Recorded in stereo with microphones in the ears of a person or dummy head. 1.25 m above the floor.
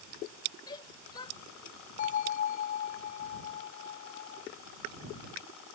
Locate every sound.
0.7 s a shout: 25° left (ahead or behind)
2.0 s a bell: 45° left (ahead or behind)